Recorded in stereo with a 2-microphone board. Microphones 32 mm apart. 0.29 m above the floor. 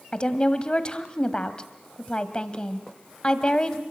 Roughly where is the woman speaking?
Left.